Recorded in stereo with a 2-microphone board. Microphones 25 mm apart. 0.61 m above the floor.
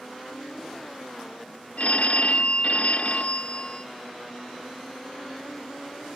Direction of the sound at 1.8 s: 70° left (ahead or behind).